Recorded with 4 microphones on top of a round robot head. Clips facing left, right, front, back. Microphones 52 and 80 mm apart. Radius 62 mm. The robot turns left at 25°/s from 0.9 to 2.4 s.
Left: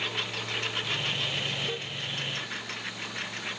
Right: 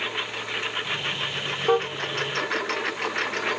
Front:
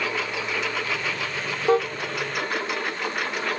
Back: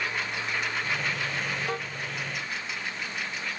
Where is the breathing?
No breathing in this recording.